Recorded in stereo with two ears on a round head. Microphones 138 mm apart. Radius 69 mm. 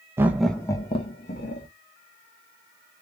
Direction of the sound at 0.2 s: 15° right (ahead or behind).